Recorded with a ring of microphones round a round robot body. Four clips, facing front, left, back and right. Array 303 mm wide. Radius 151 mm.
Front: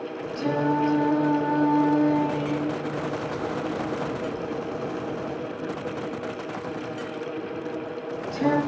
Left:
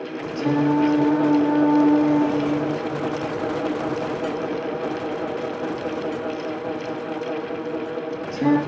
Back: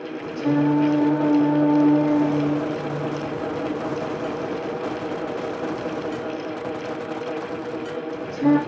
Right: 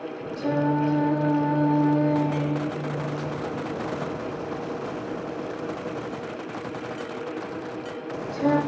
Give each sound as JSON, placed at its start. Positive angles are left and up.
{"t": 0.3, "sound": "singing", "azimuth_deg": 65, "distance_m": 4.0}